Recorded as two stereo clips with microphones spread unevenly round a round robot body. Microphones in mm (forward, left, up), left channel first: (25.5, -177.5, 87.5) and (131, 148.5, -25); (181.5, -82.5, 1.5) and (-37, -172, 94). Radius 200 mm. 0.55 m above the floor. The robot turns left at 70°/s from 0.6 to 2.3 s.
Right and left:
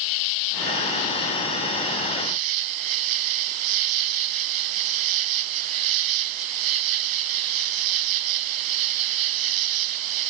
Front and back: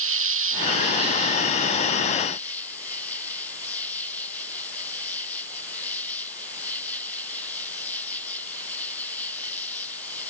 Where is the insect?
130° right; by 10.3 s 110° left.